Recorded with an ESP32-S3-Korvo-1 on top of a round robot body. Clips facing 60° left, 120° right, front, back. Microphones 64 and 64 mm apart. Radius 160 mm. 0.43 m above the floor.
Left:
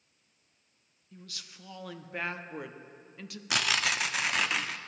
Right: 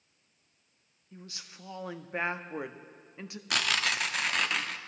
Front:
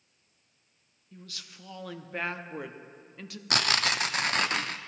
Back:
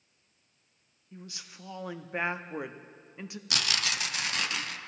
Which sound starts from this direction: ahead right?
Tearing paper, at 3.5 s.